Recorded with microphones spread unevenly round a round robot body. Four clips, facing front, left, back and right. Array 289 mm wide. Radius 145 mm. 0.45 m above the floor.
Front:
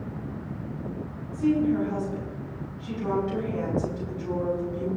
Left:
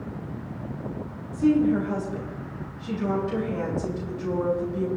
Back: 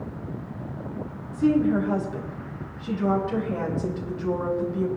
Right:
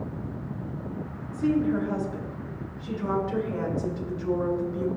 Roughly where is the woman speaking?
Behind.